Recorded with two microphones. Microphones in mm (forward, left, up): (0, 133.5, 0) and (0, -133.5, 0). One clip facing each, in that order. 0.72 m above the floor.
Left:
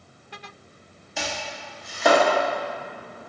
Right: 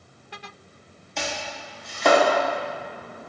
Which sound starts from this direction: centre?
Chopping, at 1.2 s.